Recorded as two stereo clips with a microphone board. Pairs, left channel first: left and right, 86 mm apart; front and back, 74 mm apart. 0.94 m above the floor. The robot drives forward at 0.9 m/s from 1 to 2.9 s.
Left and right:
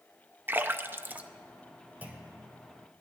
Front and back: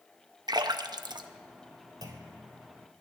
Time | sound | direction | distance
0.5 | a splash | 155° right | 0.5 m
2.0 | a clunk | 160° right | 1.5 m